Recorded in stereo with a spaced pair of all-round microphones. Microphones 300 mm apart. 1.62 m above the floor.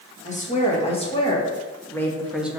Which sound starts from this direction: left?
A woman speaking, at 0.2 s.